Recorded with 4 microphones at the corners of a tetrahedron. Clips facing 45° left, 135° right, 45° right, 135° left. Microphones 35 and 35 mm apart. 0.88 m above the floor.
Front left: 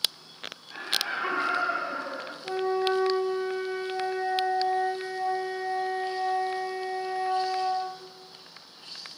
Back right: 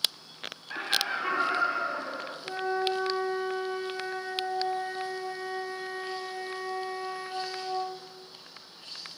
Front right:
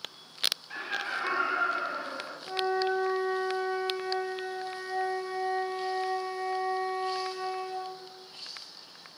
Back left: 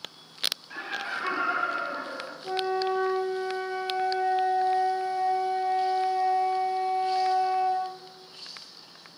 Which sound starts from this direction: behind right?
Laughter, at 0.7 s.